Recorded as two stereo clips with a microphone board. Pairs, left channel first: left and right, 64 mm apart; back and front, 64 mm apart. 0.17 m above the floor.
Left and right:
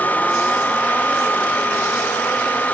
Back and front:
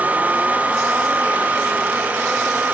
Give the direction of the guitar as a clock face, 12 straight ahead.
No guitar in this recording.